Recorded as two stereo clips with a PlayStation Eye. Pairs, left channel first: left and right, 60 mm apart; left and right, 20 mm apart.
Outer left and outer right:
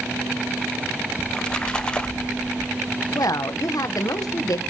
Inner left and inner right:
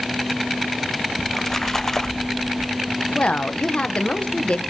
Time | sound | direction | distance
1.2 | a splash | 15° left (ahead or behind) | 1.0 m
3.1 | a woman speaking | 75° left (ahead or behind) | 1.2 m